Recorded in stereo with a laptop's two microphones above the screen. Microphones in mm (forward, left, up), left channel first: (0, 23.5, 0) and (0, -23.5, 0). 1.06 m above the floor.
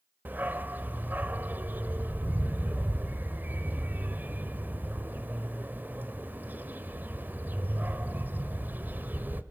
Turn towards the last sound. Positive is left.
turn(degrees=-40)  # may be behind; listen again after turning